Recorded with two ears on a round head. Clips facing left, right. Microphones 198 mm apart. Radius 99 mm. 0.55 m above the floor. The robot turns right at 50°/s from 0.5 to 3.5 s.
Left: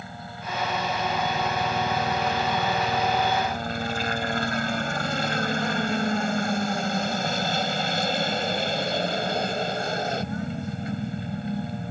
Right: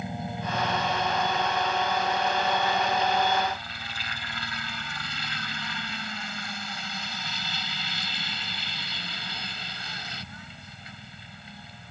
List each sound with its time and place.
0.0 s a helicopter: 20° right; by 11.9 s 130° left